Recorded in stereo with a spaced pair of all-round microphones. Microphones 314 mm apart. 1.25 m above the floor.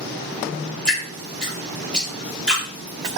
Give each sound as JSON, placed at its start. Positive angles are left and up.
{"t": 0.8, "sound": "dripping", "side_deg": 5, "distance_m": 1.1}